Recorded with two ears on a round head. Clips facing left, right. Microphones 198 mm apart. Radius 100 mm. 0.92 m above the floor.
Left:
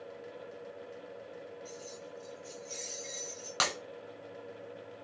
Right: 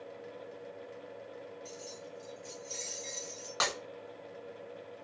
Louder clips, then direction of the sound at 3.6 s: Right 1 dB; 40° left (ahead or behind).